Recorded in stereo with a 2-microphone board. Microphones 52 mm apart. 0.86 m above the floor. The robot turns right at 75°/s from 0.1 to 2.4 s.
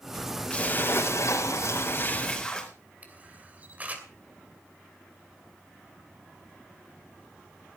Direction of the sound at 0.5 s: 25° left.